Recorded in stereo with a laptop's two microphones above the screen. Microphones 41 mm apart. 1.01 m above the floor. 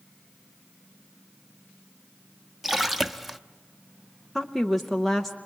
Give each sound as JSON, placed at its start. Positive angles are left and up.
{"t": 2.6, "sound": "a splash", "side_deg": -10, "distance_m": 0.7}
{"t": 4.3, "sound": "a woman speaking", "side_deg": 5, "distance_m": 0.7}